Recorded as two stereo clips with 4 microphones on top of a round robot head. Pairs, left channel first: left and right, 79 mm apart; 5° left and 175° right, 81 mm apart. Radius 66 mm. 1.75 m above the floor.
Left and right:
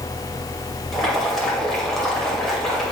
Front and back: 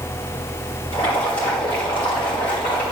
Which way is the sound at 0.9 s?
5° left.